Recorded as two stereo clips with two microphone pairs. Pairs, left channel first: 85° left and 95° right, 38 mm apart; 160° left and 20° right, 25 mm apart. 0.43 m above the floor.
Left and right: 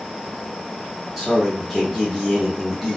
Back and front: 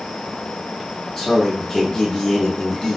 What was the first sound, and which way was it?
A man speaking, 165° right.